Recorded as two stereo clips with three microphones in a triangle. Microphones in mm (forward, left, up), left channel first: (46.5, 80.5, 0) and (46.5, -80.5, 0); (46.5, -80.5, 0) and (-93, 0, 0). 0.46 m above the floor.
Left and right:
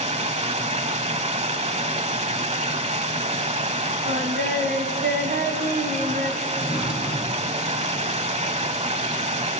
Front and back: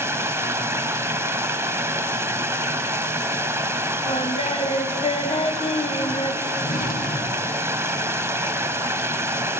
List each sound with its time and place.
0.0 s running water: 135° right, 1.0 m
4.1 s singing: 80° right, 1.8 m
6.6 s a drawer: 5° right, 2 m